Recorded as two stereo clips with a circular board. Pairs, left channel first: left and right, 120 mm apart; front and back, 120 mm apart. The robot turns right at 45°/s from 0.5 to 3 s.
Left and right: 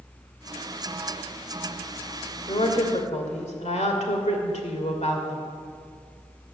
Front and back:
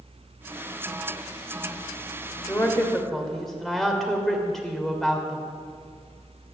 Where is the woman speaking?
60° left, 2.5 m; by 5.5 s 85° left, 2.5 m.